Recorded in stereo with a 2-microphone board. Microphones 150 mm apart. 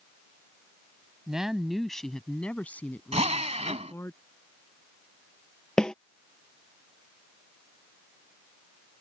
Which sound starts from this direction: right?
A drill, at 3.1 s.